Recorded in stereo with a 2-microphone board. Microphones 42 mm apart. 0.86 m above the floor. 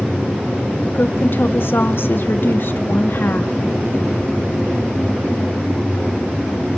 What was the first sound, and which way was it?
A woman speaking, 60° left (ahead or behind).